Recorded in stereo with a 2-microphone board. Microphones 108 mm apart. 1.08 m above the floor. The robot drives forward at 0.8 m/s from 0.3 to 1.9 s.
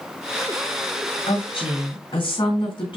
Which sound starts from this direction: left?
A woman speaking, at 1.3 s.